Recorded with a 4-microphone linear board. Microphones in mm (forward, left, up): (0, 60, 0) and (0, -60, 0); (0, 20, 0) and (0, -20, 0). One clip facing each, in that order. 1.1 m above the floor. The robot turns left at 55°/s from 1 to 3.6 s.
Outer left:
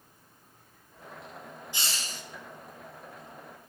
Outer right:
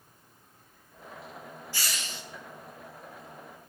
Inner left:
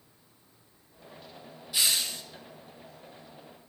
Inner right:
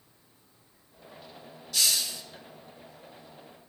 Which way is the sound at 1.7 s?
20° left (ahead or behind).